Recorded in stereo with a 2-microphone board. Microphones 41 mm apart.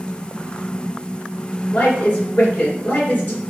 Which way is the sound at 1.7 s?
35° left (ahead or behind).